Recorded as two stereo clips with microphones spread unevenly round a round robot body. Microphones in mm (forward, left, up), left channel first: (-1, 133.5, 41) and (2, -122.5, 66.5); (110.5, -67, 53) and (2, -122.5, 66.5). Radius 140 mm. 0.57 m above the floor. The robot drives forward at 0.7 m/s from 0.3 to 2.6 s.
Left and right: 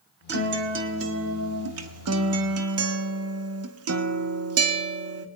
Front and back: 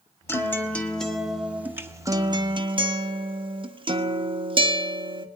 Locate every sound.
0.3 s a guitar: 40° right, 1.8 m; by 5.3 s 105° right, 1.4 m